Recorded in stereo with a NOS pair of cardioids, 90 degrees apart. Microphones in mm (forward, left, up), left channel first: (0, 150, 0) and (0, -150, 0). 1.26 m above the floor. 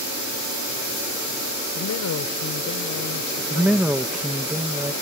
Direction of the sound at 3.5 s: 5° right.